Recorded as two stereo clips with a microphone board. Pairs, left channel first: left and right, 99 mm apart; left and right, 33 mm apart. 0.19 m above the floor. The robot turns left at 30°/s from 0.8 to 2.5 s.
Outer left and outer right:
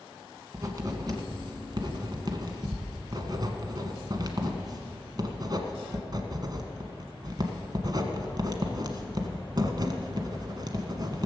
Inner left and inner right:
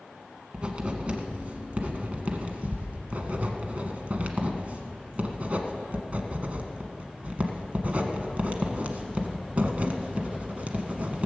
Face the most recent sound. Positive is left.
turn(degrees=-45)  # may be behind; listen again after turning